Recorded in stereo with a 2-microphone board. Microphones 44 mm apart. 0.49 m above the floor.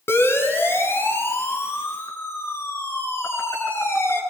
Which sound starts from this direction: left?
A siren, at 0.1 s.